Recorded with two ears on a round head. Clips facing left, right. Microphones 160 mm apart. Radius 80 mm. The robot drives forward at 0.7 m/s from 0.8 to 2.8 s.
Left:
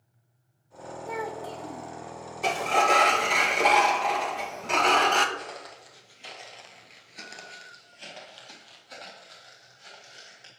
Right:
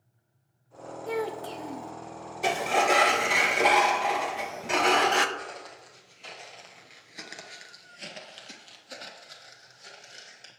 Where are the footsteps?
10° left (ahead or behind), 3 m; by 10.5 s 25° right (ahead or behind), 4.5 m.